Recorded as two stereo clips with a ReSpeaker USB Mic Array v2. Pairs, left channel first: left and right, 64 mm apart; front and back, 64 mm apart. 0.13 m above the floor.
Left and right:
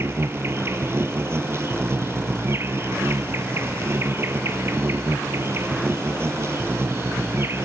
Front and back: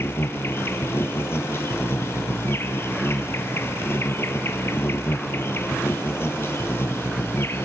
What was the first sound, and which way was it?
An insect, 45° right.